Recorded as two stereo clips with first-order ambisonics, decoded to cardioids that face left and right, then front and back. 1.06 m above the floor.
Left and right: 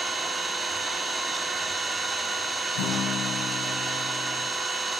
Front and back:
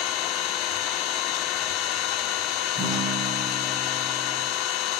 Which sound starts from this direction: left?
A guitar, at 2.8 s.